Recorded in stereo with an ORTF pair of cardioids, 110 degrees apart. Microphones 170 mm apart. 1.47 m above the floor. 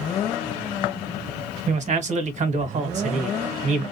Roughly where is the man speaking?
Ahead right.